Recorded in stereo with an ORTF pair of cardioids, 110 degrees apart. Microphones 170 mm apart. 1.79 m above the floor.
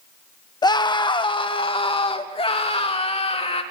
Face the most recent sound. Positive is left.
turn(degrees=35)